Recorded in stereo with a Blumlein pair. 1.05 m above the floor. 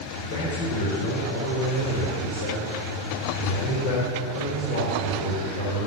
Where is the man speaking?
70° left, 4 m.